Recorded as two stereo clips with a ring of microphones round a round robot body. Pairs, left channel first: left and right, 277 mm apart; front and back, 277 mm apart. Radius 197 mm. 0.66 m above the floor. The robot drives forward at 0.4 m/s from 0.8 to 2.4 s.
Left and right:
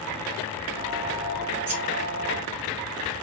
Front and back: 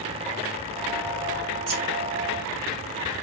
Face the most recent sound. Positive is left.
turn(degrees=-155)